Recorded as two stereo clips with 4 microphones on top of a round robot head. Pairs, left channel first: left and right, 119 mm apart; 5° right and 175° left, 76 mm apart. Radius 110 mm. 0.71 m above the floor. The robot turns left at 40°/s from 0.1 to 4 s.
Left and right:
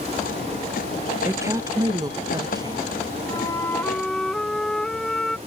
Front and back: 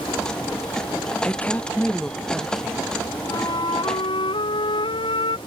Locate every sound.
1.2 s a woman speaking: 45° right; by 2.9 s 110° right
3.3 s a flute: 35° left; by 5.4 s 5° left